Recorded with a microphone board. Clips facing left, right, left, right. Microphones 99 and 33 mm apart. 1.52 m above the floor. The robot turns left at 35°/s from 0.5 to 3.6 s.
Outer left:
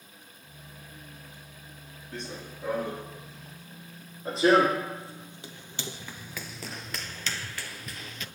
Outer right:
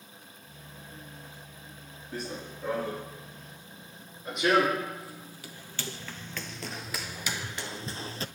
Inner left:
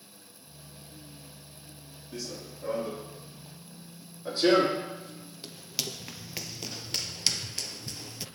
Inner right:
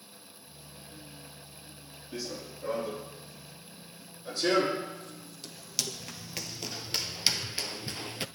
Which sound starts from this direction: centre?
Running footsteps, at 2.1 s.